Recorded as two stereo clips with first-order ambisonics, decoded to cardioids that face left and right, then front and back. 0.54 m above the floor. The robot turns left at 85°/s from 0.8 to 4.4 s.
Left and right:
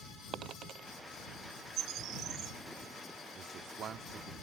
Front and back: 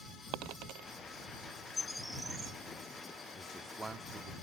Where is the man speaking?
70° right; by 4.4 s 155° right.